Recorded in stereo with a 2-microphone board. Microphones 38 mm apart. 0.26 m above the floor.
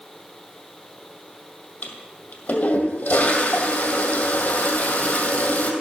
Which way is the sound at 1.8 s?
50° left (ahead or behind).